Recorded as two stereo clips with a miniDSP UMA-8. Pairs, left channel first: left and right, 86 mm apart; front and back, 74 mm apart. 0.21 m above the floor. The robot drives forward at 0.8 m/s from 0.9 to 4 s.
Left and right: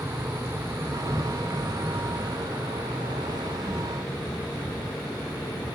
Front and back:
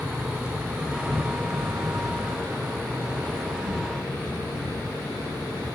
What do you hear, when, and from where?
0.0 s an insect: 110° right, 0.8 m; by 5.8 s 170° right, 3 m